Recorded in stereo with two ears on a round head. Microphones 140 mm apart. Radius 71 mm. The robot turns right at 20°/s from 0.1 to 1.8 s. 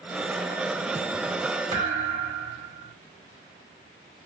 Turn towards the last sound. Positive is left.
turn(degrees=-70)  # may be behind; listen again after turning